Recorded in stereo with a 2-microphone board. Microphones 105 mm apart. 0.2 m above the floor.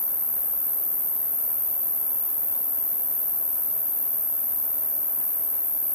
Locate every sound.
0.0 s an insect: 65° left (ahead or behind), 1.7 m